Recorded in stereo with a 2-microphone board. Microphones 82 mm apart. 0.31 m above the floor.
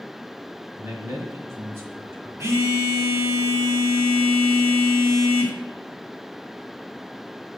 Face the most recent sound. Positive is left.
turn(degrees=-40)  # may be behind; listen again after turning